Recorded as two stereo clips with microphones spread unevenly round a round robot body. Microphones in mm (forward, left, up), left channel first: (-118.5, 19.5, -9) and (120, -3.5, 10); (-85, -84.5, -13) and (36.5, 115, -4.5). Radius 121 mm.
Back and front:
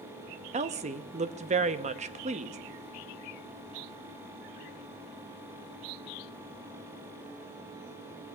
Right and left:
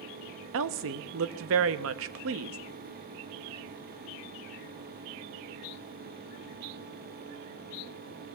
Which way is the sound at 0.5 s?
55° left.